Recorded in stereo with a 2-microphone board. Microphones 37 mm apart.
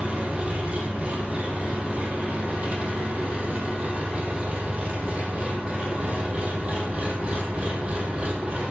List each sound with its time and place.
0.0 s an engine running: 35° right (ahead or behind), 3.5 m